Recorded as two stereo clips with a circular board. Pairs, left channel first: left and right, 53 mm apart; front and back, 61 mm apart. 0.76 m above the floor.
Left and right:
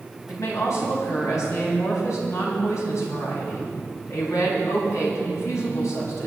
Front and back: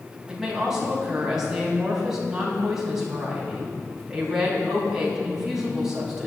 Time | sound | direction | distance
0.3 | a woman speaking | 100° left | 5.5 m